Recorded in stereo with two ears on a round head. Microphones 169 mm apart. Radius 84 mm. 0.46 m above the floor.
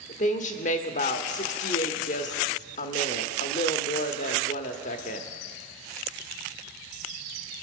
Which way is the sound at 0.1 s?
40° left (ahead or behind).